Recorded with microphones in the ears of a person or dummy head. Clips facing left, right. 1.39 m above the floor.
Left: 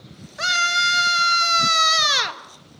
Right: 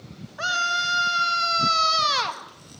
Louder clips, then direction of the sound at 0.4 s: Left 2 dB; 35° left (ahead or behind).